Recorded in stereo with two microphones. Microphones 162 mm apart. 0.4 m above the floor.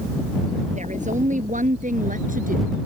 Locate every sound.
0.8 s a woman speaking: 55° right (ahead or behind); by 2.7 s 65° right (ahead or behind)